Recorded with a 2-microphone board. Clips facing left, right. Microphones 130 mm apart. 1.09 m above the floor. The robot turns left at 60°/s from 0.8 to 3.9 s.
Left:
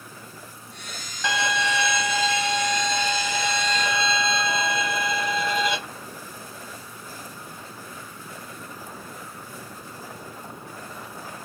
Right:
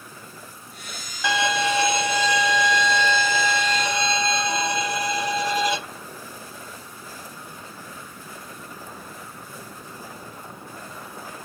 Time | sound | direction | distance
1.2 | a violin | 10° right | 1.9 m